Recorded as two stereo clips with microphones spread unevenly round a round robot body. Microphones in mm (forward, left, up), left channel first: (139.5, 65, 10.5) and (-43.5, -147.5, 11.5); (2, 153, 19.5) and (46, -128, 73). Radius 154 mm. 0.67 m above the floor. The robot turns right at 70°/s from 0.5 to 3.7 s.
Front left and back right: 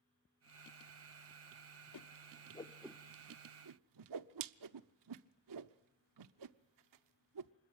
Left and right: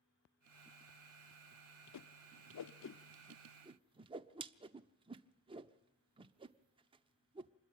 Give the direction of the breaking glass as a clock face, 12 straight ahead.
I don't hear breaking glass.